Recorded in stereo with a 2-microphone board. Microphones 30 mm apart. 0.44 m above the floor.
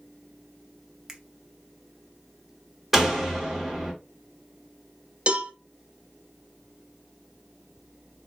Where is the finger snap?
15° right (ahead or behind), 0.6 m.